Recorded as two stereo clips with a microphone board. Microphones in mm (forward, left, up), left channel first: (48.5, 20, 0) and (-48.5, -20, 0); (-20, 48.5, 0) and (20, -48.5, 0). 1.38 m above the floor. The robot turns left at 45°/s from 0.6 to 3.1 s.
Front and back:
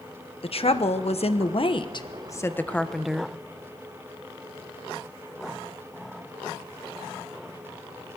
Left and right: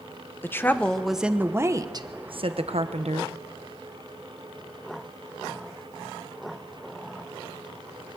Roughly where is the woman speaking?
Ahead left.